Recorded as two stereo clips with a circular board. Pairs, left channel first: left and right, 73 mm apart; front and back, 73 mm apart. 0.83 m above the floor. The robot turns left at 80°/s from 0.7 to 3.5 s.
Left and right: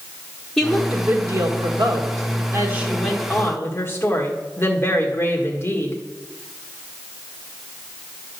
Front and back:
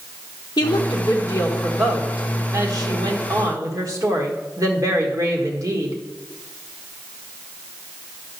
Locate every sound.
0.6 s a woman speaking: 5° left, 1.8 m; by 6.0 s 145° left, 1.8 m